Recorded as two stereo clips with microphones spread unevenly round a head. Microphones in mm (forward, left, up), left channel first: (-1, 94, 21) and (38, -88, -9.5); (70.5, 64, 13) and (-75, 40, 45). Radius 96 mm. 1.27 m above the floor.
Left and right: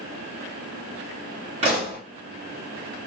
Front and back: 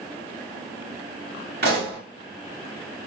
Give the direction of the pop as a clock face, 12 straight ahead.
5 o'clock.